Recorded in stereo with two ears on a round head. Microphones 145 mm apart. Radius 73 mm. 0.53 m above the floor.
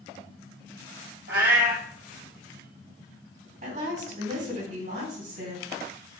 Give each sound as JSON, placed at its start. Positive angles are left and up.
{"t": 1.3, "sound": "a cat meowing", "side_deg": -75, "distance_m": 1.6}
{"t": 3.6, "sound": "a woman speaking", "side_deg": -50, "distance_m": 3.0}